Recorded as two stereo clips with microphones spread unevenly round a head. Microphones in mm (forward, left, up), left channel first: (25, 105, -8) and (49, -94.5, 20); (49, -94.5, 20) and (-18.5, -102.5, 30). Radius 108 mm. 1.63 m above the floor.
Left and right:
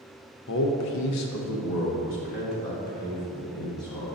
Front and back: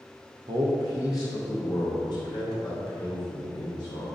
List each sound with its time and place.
0.5 s a man speaking: 145° left, 0.7 m; by 4.1 s 50° left, 2.5 m